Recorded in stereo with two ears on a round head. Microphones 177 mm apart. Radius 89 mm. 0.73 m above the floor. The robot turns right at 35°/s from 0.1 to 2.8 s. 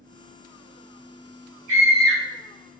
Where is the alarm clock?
No alarm clock in this recording.